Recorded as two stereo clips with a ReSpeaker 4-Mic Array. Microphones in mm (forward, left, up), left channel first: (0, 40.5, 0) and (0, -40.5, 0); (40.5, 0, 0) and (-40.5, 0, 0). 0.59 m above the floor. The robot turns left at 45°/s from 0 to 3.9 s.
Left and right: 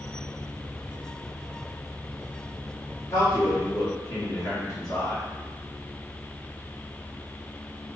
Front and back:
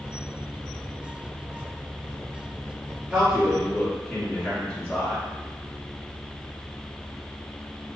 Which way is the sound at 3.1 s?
115° left.